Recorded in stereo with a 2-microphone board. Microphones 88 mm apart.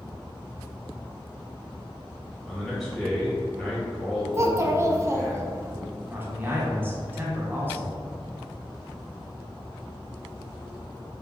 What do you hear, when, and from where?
2.5 s a man speaking: 5° left (ahead or behind), 1.6 m
4.3 s a child speaking: 30° right (ahead or behind), 0.6 m
6.1 s a man speaking: 20° right (ahead or behind), 1.1 m